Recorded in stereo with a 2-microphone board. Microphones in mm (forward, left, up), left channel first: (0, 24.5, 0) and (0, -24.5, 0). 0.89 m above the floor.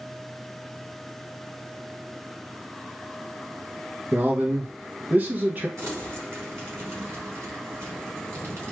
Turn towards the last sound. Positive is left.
turn(degrees=-60)  # may be behind; listen again after turning